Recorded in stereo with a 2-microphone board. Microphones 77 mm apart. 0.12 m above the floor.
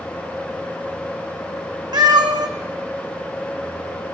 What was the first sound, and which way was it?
A cat meowing, 65° right (ahead or behind).